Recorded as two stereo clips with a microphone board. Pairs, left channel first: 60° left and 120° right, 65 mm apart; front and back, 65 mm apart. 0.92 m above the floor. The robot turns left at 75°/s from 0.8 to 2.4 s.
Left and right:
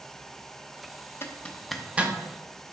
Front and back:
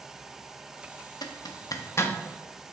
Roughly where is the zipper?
Ahead.